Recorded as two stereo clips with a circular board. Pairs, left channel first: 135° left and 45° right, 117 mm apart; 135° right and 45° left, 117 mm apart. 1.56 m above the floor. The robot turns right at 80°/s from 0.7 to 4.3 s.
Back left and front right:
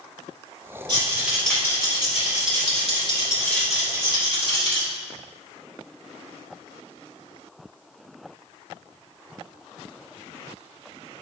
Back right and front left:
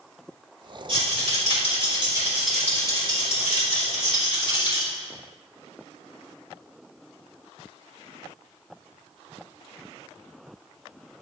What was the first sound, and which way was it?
A rattle, 5° left.